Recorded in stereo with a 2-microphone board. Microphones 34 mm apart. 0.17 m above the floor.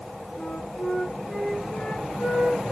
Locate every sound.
0.4 s a flute: 55° left (ahead or behind), 5 m